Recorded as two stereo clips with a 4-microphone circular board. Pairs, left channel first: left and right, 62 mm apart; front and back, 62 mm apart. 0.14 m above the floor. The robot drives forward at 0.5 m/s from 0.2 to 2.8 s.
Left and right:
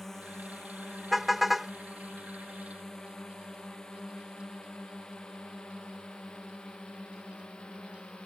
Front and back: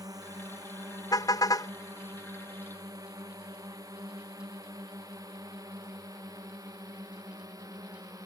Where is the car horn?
Straight ahead.